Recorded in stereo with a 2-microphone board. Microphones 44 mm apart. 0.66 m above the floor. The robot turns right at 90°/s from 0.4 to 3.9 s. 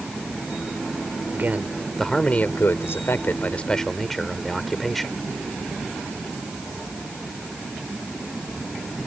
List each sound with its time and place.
1.3 s a man speaking: 50° right; by 5.2 s straight behind